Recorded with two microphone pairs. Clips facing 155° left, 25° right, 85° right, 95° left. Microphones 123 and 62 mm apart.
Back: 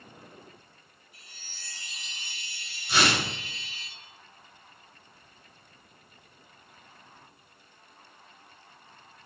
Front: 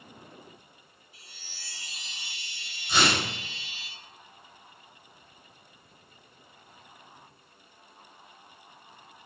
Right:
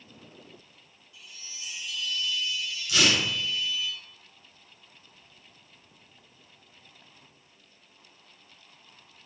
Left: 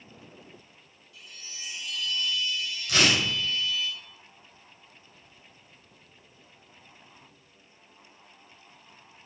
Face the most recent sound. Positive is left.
turn(degrees=70)